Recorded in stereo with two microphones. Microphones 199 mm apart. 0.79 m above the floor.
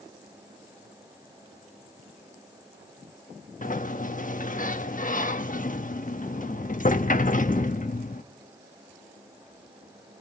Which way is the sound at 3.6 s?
40° left (ahead or behind).